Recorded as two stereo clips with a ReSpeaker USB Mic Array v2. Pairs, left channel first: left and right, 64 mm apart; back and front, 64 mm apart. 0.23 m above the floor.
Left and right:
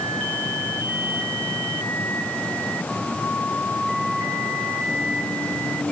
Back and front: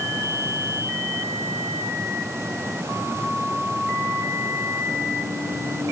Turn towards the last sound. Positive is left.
No sound to turn to.